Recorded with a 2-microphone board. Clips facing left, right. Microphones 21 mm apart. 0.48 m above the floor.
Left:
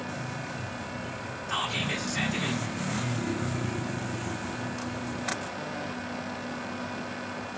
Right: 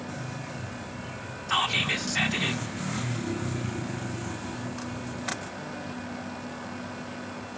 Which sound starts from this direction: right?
Whispering, at 1.5 s.